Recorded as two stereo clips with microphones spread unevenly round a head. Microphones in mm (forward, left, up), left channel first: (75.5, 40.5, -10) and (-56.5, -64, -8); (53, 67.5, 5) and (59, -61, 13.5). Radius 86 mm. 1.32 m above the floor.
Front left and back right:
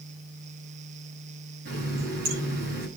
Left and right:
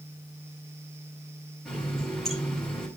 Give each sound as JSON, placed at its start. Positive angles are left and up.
{"t": 1.6, "sound": "a running tap", "azimuth_deg": -175, "distance_m": 7.5}